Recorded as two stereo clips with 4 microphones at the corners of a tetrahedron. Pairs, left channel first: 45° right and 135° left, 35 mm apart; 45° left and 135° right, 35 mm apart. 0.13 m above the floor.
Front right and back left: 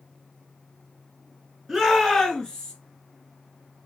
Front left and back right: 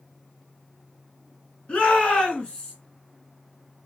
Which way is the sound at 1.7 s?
55° left.